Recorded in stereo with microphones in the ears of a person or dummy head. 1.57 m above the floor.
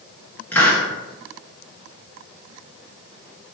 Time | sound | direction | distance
0.5 | a hiss | 10° left (ahead or behind) | 1.4 m